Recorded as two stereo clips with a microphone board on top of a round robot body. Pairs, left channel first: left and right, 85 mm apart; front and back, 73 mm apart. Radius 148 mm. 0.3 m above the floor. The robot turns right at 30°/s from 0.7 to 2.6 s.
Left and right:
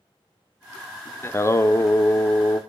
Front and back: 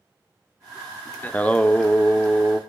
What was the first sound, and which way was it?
Singing, 50° left.